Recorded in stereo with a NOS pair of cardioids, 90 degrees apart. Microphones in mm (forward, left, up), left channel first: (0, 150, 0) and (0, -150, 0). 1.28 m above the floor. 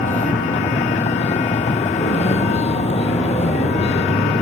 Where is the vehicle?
25° left; by 4.4 s 20° left.